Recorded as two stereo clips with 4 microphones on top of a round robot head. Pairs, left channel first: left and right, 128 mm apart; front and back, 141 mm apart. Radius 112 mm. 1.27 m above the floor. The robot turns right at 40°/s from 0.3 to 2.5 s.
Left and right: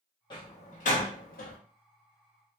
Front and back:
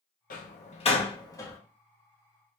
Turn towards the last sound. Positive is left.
turn(degrees=115)